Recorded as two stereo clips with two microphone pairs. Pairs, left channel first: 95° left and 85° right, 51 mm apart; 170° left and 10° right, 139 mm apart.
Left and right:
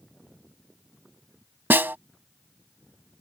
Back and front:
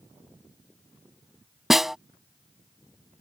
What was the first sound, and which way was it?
A snare drum, 90° right.